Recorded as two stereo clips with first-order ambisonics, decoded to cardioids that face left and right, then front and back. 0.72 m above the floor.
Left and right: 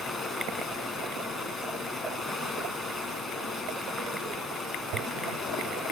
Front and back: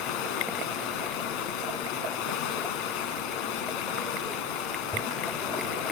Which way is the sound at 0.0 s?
Straight ahead.